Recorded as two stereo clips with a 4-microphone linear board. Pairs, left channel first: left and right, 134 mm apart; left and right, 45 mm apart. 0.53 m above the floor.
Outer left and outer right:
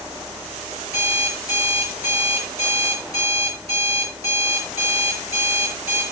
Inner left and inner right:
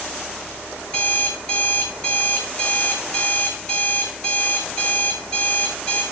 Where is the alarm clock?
20° left (ahead or behind), 5.5 m.